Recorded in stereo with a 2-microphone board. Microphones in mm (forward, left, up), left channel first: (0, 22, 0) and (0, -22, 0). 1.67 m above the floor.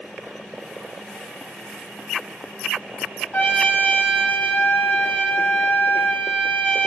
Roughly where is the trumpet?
Left.